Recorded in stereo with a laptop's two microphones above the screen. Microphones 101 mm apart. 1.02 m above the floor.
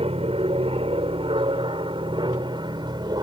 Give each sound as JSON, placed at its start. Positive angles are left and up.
{"t": 0.0, "sound": "an aircraft", "side_deg": -70}